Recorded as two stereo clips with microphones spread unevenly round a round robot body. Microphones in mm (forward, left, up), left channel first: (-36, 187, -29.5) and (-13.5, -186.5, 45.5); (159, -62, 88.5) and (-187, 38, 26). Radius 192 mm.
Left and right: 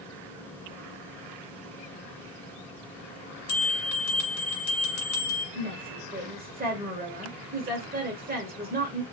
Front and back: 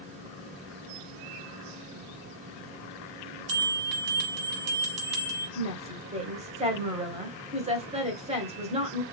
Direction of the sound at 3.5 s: 140° left.